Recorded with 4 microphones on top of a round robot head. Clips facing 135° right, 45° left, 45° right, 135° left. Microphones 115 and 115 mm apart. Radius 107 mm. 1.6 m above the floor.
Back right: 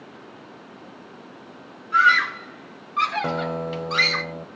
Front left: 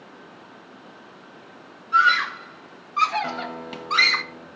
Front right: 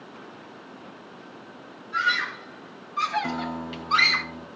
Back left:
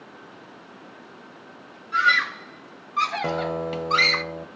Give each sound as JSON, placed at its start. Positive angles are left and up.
{"t": 1.9, "sound": "a scream", "azimuth_deg": 110, "distance_m": 3.0}
{"t": 3.2, "sound": "a guitar", "azimuth_deg": 170, "distance_m": 1.5}